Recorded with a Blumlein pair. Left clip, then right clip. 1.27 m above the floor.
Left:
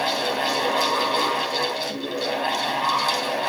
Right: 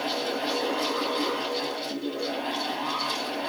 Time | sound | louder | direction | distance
0.0 | a fan | left 6 dB | 50° left | 4 m